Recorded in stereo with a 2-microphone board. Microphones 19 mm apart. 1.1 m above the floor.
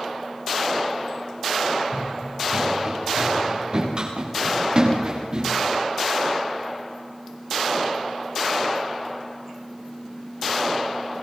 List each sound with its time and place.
1.9 s running footsteps: 55° right (ahead or behind), 6 m; by 5.5 s 45° right (ahead or behind), 10 m